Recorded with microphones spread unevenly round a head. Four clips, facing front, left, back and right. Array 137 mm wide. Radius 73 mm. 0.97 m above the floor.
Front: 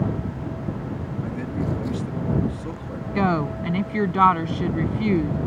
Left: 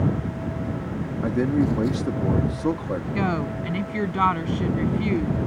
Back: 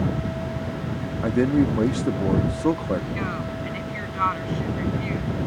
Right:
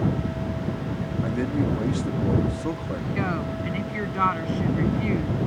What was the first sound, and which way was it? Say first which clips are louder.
A man speaking: left 5 dB, back 10 dB; 155° left.